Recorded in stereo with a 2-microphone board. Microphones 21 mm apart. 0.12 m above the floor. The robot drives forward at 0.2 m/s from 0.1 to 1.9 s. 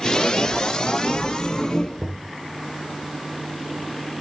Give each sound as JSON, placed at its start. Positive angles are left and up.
{"t": 2.0, "sound": "knocking", "side_deg": -15, "distance_m": 1.6}